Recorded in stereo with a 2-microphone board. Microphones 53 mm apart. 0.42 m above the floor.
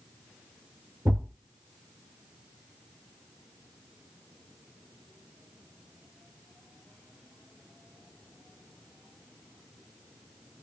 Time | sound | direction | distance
1.1 | a thud | 60° right (ahead or behind) | 2.5 m